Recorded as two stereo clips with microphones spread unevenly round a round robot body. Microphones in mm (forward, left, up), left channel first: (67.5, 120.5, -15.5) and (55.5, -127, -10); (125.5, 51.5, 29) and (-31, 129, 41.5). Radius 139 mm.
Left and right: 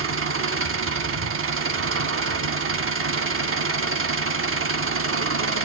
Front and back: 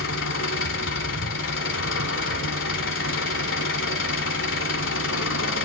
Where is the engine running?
55° right, 0.8 m.